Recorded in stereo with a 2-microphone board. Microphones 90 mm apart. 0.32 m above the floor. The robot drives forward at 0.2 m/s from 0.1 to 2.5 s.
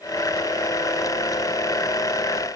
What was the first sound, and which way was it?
Only background noise.